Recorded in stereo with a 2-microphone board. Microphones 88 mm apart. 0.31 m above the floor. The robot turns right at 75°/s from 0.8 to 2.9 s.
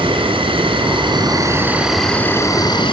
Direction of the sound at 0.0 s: 90° right.